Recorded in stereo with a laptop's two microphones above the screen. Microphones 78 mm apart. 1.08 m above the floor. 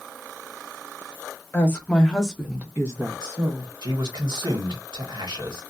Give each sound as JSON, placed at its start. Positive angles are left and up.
{"t": 1.5, "sound": "a woman speaking", "side_deg": 25, "distance_m": 1.1}
{"t": 3.8, "sound": "a man speaking", "side_deg": -75, "distance_m": 1.2}